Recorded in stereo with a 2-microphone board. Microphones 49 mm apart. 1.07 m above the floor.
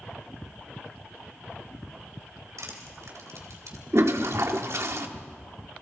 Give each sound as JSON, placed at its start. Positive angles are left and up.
{"t": 2.6, "sound": "crushing", "side_deg": -90, "distance_m": 3.5}
{"t": 3.9, "sound": "a toilet flushing", "side_deg": -65, "distance_m": 1.3}